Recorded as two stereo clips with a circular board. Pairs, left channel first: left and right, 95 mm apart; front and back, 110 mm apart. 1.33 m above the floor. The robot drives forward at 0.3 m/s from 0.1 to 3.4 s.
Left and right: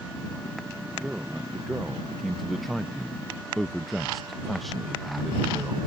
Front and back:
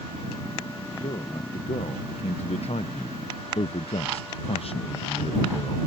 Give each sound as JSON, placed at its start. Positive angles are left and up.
{"t": 1.0, "sound": "a man speaking", "azimuth_deg": 0}